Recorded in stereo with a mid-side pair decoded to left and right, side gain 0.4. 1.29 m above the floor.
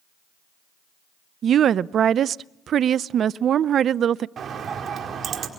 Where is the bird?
60° right, 5 m.